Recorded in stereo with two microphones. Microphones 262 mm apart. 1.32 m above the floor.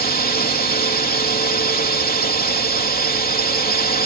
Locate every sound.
0.0 s a drone: 35° left (ahead or behind)